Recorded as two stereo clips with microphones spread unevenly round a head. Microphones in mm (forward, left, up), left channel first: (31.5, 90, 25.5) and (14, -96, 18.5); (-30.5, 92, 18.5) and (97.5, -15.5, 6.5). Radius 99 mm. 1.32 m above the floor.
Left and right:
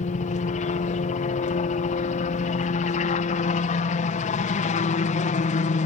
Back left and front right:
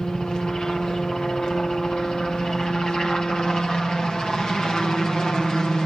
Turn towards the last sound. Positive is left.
turn(degrees=55)